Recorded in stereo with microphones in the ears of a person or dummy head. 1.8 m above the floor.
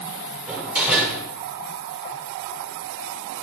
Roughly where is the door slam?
Centre.